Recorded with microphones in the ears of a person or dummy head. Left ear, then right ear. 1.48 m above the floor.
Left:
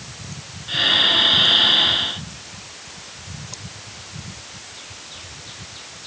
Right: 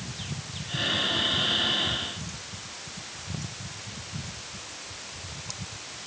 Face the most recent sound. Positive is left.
turn(degrees=30)  # may be behind; listen again after turning